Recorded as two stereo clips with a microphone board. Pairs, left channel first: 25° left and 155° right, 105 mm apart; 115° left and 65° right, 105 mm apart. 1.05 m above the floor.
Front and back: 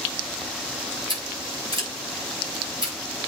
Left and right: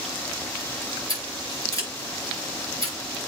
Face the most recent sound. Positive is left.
turn(degrees=165)